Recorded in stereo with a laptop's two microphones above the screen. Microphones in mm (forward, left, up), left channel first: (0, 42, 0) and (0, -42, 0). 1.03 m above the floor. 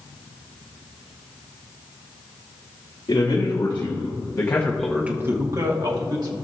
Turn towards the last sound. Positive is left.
turn(degrees=-65)  # may be behind; listen again after turning